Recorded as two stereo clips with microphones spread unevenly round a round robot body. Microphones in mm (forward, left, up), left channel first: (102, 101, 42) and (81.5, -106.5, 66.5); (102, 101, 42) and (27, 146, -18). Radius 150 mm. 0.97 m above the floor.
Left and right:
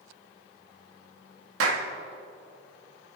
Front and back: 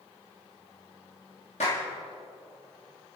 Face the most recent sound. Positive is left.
turn(degrees=-100)